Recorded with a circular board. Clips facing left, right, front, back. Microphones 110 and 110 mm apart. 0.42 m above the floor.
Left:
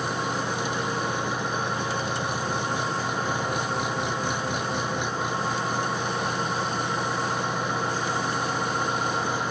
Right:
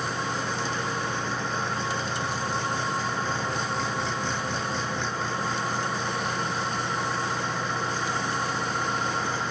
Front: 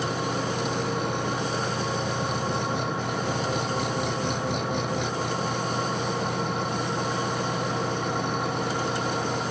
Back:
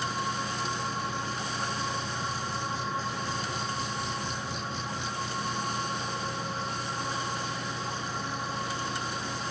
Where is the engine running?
15° left.